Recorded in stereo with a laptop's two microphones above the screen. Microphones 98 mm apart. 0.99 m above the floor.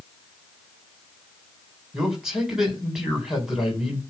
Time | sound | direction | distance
1.9 | a man speaking | 5° right (ahead or behind) | 3.5 m